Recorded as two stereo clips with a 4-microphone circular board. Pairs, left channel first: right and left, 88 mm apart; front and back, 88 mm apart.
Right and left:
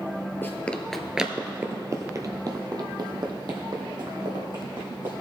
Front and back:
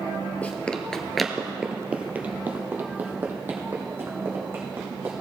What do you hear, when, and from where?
0.4 s running footsteps: 55° right, 0.9 m; by 5.1 s 115° left, 3 m